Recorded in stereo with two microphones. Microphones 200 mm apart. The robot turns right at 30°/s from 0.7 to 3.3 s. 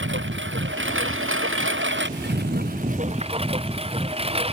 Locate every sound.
0.0 s a lawn mower: 105° right; by 4.5 s 30° right